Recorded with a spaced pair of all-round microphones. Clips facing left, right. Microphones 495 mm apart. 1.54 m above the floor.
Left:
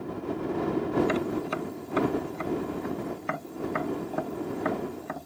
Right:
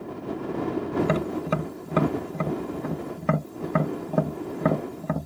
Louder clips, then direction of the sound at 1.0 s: Right 3 dB; 60° right (ahead or behind).